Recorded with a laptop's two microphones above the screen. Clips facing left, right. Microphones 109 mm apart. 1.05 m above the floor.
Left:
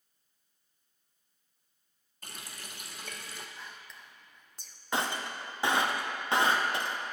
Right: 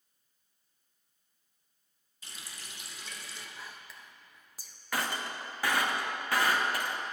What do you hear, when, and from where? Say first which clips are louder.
2.2 s a running tap: left 3 dB; 50° left (ahead or behind), 0.6 m
3.6 s whispering: even; 5° right (ahead or behind), 0.7 m
4.9 s breaking glass: left 2 dB; 25° left (ahead or behind), 0.6 m